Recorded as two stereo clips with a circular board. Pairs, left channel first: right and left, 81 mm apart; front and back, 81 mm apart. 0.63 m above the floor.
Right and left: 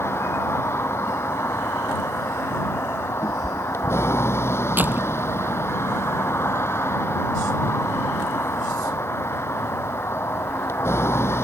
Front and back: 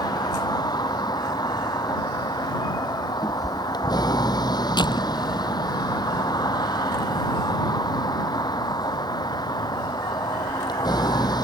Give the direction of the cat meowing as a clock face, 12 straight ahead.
1 o'clock.